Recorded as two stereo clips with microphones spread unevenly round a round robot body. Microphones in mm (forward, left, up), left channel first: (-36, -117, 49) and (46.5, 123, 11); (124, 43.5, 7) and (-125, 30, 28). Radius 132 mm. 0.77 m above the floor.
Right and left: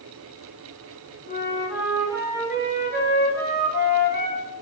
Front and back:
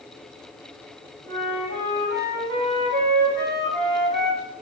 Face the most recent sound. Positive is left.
turn(degrees=-150)